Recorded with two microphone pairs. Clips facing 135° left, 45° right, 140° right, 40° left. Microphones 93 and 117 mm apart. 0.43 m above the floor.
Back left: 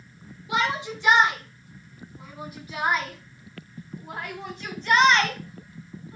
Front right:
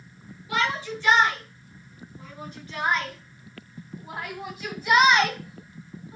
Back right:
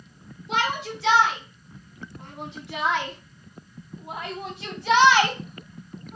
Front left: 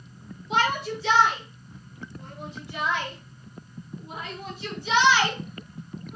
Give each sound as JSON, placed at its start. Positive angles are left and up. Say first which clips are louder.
{"t": 0.5, "sound": "a shout", "louder": "back left 1 dB, front left 2 dB", "azimuth_deg": -150, "distance_m": 4.5}